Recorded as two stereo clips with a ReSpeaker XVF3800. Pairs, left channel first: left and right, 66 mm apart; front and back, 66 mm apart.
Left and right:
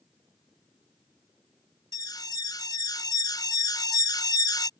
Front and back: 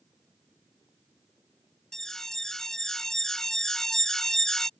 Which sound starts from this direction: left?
An alarm, at 1.9 s.